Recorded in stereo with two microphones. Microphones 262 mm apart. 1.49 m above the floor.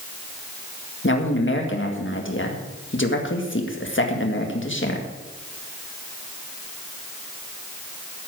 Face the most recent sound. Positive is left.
turn(degrees=50)  # may be behind; listen again after turning